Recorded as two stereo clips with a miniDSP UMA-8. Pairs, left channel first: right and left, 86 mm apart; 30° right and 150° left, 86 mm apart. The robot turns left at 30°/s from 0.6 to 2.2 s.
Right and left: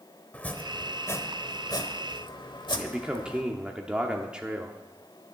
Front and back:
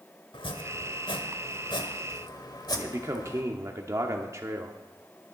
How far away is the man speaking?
About 1.0 m.